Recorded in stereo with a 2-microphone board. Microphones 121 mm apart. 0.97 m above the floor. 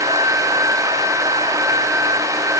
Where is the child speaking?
No child speaking in this recording.